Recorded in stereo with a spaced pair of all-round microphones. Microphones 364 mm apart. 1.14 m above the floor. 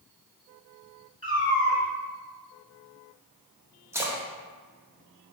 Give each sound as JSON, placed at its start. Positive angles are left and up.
{"t": 1.2, "sound": "a cat meowing", "side_deg": -20, "distance_m": 0.9}
{"t": 3.9, "sound": "a splash", "side_deg": -5, "distance_m": 0.5}